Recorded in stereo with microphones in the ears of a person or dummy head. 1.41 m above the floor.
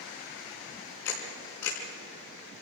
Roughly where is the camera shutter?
Left.